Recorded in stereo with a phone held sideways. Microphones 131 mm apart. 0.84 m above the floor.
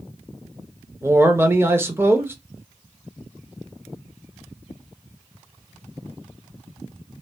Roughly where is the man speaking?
Centre.